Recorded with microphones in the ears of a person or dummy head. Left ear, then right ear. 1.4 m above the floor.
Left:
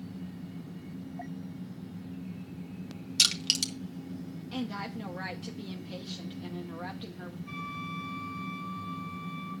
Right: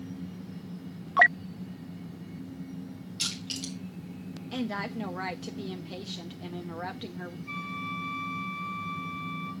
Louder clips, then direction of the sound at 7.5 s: Right 3 dB; centre (ahead or behind).